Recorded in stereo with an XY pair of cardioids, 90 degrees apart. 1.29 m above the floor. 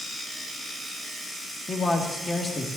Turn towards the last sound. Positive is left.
turn(degrees=35)